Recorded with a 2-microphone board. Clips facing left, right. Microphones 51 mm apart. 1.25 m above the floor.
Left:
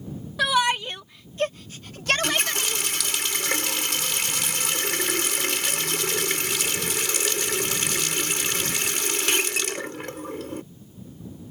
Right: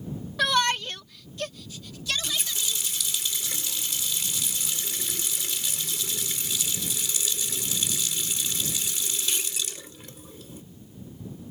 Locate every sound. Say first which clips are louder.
0.4 s a shout: left 2 dB; 5° left (ahead or behind); by 2.8 s 70° left (ahead or behind)
2.1 s a running tap: left 8 dB; 80° left